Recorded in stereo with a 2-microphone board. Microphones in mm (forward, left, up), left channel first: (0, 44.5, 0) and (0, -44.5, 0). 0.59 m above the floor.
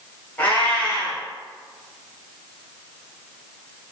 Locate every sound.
0.4 s a cat meowing: 20° left (ahead or behind), 1.3 m